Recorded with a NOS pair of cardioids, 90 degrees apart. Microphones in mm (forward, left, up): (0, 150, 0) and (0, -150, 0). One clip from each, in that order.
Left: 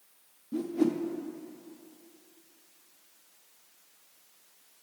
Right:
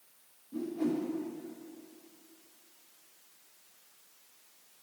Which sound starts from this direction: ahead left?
A whoosh, at 0.5 s.